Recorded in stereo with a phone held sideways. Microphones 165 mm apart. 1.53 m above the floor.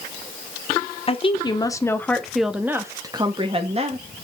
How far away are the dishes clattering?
I don't hear dishes clattering.